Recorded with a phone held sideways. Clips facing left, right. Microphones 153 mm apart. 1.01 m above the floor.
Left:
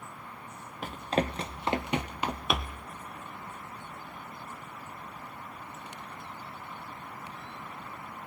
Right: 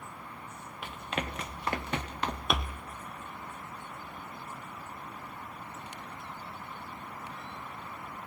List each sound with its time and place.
0.8 s running footsteps: 40° left (ahead or behind), 1.5 m; by 2.9 s 5° right (ahead or behind), 1.3 m